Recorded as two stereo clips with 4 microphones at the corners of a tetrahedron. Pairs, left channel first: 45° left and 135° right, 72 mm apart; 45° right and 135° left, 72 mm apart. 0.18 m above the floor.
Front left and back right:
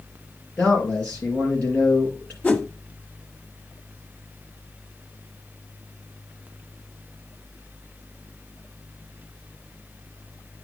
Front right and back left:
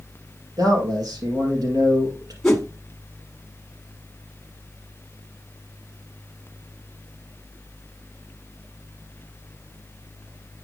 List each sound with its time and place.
0.6 s a man speaking: 115° left, 4 m
2.4 s a whoosh: 20° left, 1.1 m